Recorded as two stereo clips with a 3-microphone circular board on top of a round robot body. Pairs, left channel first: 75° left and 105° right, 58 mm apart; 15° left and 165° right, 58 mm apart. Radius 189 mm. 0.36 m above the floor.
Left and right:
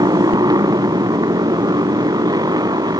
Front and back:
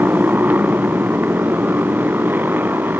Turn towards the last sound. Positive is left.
turn(degrees=-105)